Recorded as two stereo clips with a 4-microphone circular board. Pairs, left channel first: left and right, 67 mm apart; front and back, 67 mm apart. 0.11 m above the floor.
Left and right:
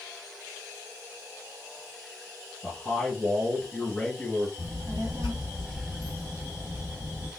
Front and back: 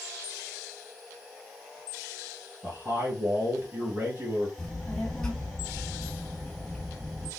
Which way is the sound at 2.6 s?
160° left.